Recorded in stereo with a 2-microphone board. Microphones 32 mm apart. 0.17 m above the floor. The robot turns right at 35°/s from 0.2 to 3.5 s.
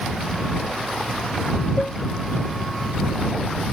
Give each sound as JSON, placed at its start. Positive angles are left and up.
{"t": 1.8, "sound": "a cowbell", "side_deg": 30}